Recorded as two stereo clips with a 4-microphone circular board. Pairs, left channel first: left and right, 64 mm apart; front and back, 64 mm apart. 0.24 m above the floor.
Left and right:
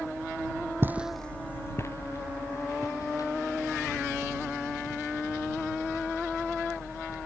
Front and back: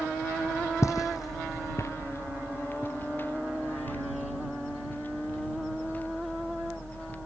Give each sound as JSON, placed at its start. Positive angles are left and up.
{"t": 0.8, "sound": "footsteps", "azimuth_deg": -35}